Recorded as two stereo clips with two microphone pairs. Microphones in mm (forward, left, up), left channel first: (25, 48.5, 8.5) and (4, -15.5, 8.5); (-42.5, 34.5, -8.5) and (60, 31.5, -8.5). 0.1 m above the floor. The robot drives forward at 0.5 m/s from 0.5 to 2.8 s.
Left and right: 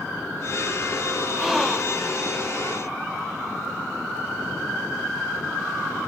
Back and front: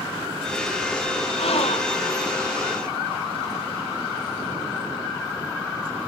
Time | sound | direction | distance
1.4 | a gasp | 165° left | ?